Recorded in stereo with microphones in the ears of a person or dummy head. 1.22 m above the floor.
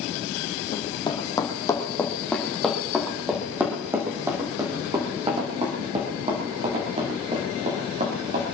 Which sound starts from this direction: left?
Running footsteps, at 0.7 s.